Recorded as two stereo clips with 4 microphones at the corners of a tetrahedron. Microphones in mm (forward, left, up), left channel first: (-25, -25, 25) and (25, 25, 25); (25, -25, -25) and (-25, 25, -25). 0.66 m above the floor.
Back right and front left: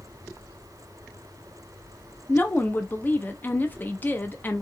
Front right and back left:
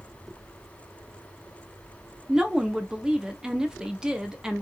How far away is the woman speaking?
About 0.5 m.